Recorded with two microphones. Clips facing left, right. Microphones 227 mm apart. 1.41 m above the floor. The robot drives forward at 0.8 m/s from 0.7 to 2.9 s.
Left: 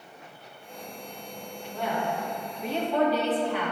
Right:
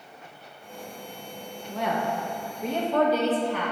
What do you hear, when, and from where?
1.7 s a woman speaking: 75° right (ahead or behind), 1.3 m; by 3.7 s 45° right (ahead or behind), 1.8 m